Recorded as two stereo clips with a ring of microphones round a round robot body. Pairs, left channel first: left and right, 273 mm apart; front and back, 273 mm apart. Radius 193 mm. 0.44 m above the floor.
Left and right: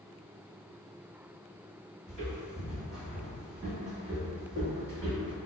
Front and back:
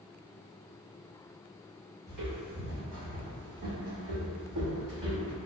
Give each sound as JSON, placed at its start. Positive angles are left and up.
{"t": 2.1, "sound": "footsteps", "azimuth_deg": 165, "distance_m": 1.7}